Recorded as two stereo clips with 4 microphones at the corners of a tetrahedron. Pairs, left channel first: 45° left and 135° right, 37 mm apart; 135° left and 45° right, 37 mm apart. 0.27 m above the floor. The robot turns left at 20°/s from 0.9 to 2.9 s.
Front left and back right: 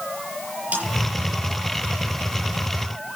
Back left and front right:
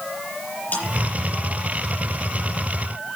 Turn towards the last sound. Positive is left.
turn(degrees=140)